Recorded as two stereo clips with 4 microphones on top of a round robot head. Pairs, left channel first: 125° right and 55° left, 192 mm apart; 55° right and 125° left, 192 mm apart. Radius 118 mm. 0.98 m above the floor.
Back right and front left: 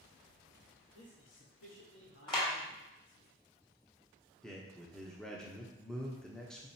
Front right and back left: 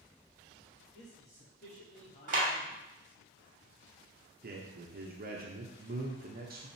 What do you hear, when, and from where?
0.9 s a man speaking: 100° right, 2 m; by 3.3 s 140° right, 1.9 m
2.3 s a clap: 170° left, 2.5 m
4.4 s a man speaking: 150° left, 1.1 m